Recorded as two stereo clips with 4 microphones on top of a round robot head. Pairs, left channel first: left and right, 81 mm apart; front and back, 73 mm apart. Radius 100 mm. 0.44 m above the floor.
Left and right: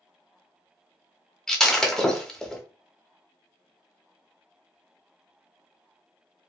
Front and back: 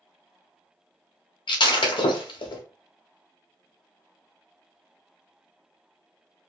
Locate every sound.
1.5 s breaking glass: 5° left, 1.0 m